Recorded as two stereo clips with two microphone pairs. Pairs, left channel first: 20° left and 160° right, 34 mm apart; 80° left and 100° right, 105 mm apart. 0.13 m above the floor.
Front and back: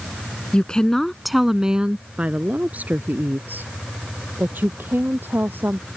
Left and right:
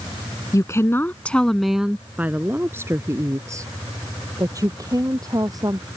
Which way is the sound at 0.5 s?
50° left.